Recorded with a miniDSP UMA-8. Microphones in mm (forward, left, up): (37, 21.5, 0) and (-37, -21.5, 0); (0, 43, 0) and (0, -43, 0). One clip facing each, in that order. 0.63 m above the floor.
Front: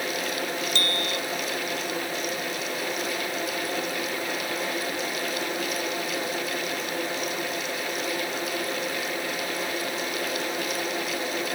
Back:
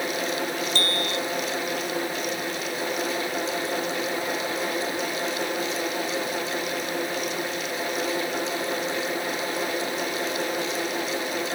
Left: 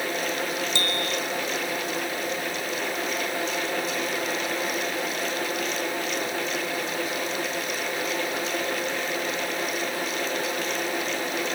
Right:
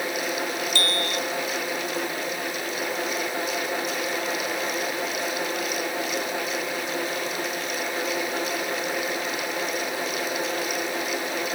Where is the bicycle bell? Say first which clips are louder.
Back 2 dB, right 1 dB; 160° left.